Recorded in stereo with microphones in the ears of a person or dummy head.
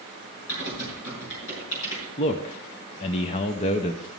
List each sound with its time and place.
0.5 s typing on a keyboard: 65° left (ahead or behind), 5 m
2.2 s a man speaking: 30° left (ahead or behind), 0.6 m